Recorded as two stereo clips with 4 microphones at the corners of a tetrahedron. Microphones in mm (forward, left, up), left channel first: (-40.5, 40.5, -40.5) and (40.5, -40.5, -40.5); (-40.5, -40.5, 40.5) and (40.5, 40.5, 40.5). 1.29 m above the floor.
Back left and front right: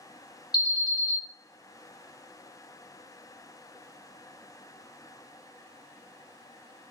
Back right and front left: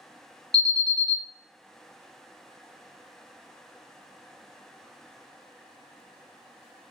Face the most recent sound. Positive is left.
turn(degrees=-170)